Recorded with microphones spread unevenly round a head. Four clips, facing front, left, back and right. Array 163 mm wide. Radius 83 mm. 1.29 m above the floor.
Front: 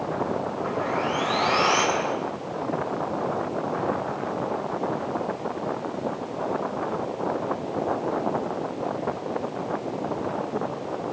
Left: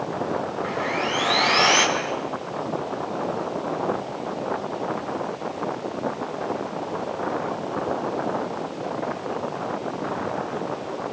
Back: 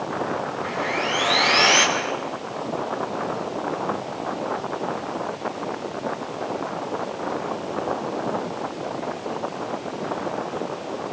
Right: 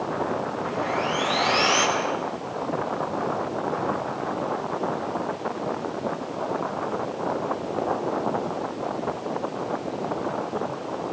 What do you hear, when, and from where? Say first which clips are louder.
0.6 s sawing: even, front 1 dB; 135° left, 7 m